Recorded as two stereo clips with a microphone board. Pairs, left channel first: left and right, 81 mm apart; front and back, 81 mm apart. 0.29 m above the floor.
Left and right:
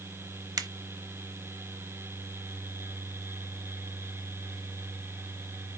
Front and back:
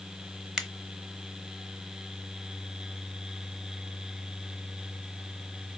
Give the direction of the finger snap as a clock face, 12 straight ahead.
3 o'clock.